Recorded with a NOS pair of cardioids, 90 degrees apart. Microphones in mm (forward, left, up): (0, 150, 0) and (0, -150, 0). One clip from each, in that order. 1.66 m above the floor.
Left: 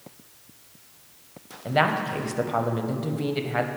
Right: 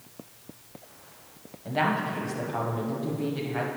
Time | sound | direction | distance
1.6 | a woman speaking | 40° left | 0.8 m